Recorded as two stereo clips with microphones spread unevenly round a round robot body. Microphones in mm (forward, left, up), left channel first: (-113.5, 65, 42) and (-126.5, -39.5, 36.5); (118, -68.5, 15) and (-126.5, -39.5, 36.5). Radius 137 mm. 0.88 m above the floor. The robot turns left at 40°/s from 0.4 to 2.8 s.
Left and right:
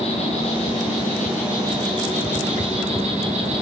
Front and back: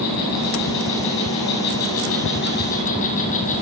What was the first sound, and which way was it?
An insect, 30° left.